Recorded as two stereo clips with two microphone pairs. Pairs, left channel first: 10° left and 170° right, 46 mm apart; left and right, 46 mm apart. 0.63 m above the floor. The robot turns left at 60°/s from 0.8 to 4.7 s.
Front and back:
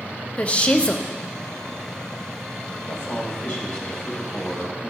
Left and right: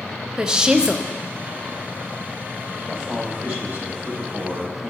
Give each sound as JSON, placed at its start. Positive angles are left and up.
{"t": 0.4, "sound": "a woman speaking", "azimuth_deg": -30, "distance_m": 0.6}
{"t": 2.9, "sound": "a man speaking", "azimuth_deg": -10, "distance_m": 3.0}